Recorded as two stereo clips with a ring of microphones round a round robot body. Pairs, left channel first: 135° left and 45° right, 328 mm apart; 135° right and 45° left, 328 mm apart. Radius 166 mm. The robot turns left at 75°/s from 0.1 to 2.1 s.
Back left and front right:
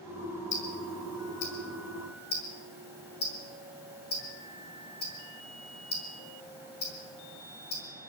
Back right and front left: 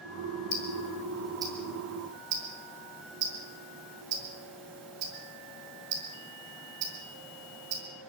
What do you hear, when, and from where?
0.5 s ticking: 170° right, 5 m; by 7.8 s 75° left, 5 m